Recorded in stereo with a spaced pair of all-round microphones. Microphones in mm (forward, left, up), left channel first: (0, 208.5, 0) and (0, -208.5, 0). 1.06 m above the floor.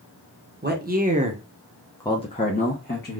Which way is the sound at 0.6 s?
25° right (ahead or behind).